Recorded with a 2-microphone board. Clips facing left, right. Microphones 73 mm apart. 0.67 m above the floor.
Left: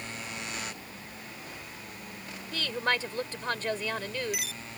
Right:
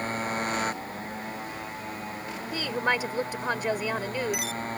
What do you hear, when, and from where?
0.0 s a motorcycle: 45° right (ahead or behind); by 4.8 s 50° right (ahead or behind)
2.5 s a woman speaking: 15° right (ahead or behind)